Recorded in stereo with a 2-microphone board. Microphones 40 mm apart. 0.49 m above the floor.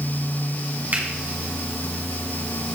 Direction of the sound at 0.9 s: 50° right (ahead or behind).